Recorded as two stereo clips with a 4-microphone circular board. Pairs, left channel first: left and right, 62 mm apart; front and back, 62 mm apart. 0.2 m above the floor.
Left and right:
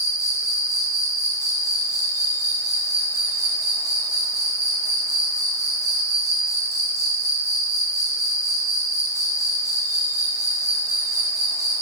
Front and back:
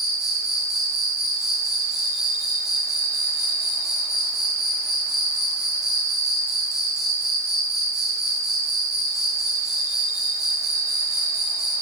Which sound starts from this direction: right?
An insect, at 0.0 s.